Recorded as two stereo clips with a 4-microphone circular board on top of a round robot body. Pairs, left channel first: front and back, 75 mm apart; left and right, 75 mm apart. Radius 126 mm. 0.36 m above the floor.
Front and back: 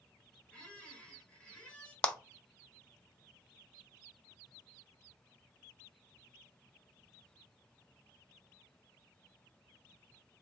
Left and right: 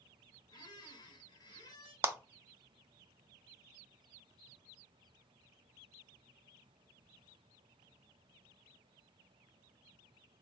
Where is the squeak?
75° left, 1.1 m.